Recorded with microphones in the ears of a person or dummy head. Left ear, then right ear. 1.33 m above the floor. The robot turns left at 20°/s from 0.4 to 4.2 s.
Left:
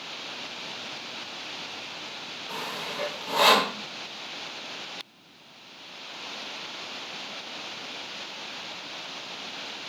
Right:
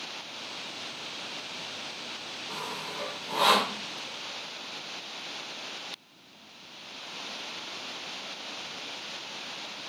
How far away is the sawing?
About 1.4 m.